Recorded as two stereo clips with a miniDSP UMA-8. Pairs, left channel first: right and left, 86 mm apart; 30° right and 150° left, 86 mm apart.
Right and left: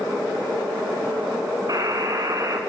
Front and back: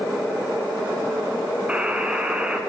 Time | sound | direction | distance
1.7 | a buzzer | 80° left | 1.0 m